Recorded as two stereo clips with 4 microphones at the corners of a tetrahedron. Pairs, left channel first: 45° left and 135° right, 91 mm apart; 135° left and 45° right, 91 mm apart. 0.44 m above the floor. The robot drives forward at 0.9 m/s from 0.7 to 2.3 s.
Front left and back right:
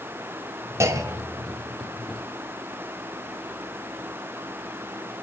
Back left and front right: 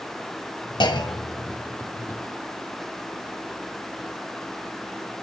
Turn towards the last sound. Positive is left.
turn(degrees=175)